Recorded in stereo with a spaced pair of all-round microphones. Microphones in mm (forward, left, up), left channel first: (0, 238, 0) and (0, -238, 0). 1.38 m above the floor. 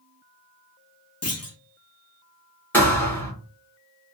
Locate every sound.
1.2 s a clunk: 35° left (ahead or behind), 0.5 m
2.7 s a thud: 5° left (ahead or behind), 1.4 m